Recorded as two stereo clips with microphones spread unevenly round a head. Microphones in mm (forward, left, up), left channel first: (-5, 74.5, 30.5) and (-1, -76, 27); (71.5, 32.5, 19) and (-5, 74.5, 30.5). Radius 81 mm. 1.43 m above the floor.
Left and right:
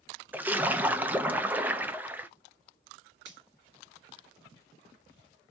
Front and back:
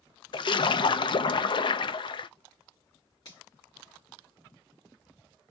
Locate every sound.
0.3 s a splash: 10° right, 0.5 m
3.2 s a finger snap: 95° right, 1.8 m